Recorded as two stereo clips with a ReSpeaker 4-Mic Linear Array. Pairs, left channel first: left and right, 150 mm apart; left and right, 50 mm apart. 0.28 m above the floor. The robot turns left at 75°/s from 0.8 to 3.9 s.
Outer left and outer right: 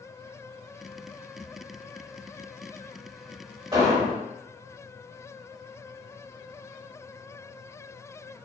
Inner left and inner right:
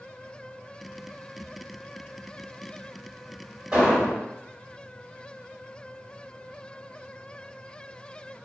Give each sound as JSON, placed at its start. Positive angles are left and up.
{"t": 3.7, "sound": "an explosion", "side_deg": -30, "distance_m": 1.1}